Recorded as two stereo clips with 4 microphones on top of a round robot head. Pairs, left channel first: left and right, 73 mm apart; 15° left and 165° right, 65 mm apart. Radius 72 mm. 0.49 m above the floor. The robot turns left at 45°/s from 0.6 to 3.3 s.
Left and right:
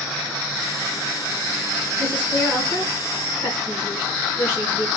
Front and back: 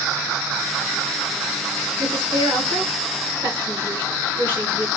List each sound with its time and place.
2.0 s a woman speaking: 165° right, 3 m; by 4.9 s 135° left, 3 m